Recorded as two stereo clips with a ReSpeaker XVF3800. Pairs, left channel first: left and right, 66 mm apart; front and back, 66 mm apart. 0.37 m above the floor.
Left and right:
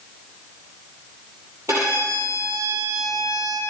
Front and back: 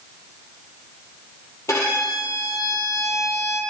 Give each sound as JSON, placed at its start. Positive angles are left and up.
{"t": 1.7, "sound": "a violin", "azimuth_deg": -40, "distance_m": 4.0}